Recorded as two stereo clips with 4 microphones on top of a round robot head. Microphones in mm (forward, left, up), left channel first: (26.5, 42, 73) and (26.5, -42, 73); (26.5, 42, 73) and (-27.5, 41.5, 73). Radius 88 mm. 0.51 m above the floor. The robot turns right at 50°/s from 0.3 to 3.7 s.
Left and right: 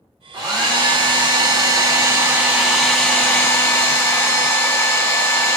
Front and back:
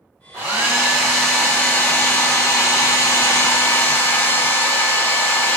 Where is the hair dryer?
130° right, 1.1 m; by 5.6 s 40° left, 1.1 m.